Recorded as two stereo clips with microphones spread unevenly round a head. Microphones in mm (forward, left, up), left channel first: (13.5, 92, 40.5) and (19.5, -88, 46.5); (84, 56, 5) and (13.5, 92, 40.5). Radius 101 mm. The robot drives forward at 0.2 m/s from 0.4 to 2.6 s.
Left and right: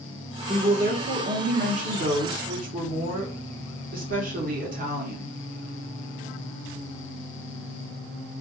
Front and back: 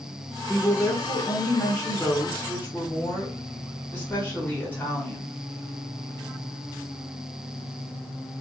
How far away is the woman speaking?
About 1.3 m.